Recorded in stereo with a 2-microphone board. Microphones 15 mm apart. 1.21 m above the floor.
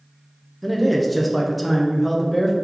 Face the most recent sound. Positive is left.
turn(degrees=5)  # may be behind; listen again after turning